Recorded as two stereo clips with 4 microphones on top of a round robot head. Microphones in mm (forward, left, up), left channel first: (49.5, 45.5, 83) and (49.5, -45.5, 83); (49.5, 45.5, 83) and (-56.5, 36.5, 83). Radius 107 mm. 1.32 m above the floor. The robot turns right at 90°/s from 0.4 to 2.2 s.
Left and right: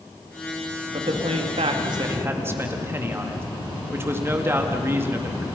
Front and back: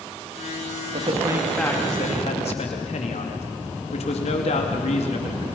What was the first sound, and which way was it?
A man speaking, 140° right.